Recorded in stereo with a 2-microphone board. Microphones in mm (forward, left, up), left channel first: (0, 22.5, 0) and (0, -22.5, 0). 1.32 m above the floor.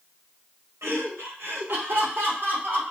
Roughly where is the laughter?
Right.